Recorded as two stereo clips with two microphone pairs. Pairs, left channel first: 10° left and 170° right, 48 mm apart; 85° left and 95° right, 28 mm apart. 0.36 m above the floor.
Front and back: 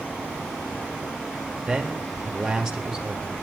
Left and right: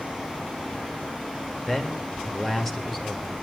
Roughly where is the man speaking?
Behind left.